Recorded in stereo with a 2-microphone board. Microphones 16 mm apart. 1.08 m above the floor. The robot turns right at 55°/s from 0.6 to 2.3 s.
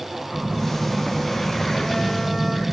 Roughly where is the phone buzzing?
Left.